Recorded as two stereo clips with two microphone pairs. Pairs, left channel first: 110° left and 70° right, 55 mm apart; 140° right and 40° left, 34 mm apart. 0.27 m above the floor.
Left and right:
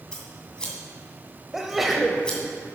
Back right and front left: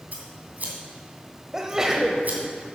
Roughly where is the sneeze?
Ahead.